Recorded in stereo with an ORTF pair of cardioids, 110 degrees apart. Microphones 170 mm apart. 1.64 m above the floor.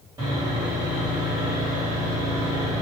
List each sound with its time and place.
0.2 s sawing: 20° right, 1.9 m